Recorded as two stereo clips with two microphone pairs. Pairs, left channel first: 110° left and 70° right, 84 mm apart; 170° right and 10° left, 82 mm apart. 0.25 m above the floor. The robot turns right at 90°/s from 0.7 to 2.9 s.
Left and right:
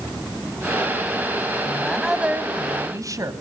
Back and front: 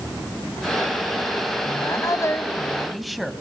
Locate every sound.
1.6 s a woman speaking: 170° left, 1.9 m; by 3.3 s 80° right, 1.9 m